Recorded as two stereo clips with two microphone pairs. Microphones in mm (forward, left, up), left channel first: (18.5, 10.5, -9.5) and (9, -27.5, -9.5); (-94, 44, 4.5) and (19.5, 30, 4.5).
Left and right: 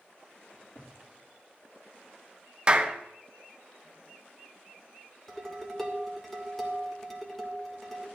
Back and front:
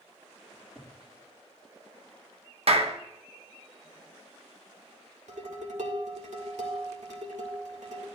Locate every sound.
0.5 s a cupboard door: 80° left, 2 m
2.7 s a clap: 35° right, 0.9 m
5.3 s dishes clattering: 5° right, 2 m